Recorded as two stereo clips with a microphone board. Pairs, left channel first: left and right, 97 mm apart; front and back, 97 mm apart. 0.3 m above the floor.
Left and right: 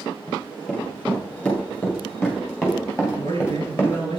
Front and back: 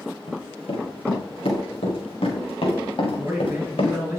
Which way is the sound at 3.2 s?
115° left.